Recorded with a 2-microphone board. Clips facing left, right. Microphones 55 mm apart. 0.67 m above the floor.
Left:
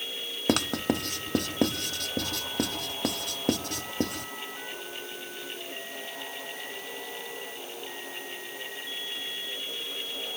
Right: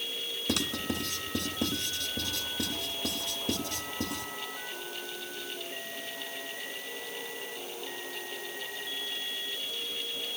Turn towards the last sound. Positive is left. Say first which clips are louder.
# left 6 dB
turn(degrees=60)  # may be behind; listen again after turning